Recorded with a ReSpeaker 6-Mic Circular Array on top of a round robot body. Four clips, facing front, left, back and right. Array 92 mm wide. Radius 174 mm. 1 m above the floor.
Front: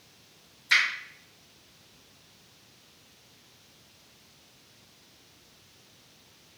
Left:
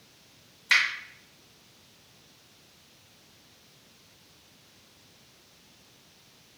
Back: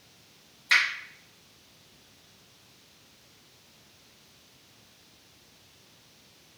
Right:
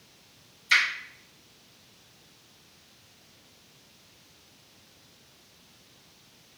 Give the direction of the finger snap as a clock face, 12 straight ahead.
9 o'clock.